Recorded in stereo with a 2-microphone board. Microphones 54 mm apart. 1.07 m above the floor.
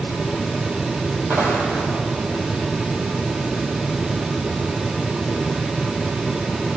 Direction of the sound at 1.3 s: 50° right (ahead or behind).